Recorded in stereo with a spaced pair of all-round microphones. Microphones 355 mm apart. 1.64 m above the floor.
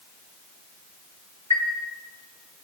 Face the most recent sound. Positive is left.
turn(degrees=-45)  # may be behind; listen again after turning